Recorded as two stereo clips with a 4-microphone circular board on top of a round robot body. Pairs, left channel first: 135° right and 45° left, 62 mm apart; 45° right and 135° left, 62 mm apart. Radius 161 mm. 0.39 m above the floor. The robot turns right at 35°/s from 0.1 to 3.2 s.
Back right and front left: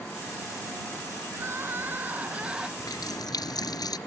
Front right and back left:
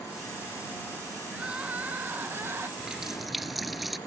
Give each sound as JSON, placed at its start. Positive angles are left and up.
{"t": 1.3, "sound": "crying", "azimuth_deg": 65}
{"t": 2.8, "sound": "a running tap", "azimuth_deg": -150}